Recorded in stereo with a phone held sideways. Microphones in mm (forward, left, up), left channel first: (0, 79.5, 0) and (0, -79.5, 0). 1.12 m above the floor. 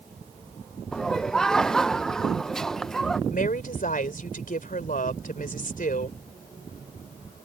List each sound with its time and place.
0.9 s laughter: 5° left (ahead or behind)
3.3 s a woman speaking: 60° left (ahead or behind)